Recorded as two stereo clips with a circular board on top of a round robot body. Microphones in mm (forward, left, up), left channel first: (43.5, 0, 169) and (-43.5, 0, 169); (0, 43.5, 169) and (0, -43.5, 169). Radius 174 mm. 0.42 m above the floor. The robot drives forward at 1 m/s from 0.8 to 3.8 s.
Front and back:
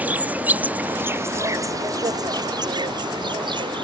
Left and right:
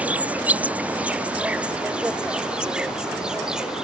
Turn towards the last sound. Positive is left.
turn(degrees=-170)